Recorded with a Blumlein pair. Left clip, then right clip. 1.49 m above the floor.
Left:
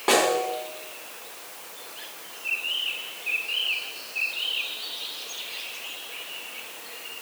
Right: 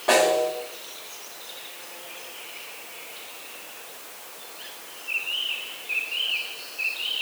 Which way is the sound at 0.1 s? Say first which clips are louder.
Right 2 dB; 20° left.